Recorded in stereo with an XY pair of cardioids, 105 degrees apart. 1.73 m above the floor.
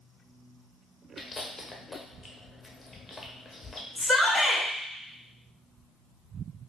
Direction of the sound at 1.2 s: 25° left.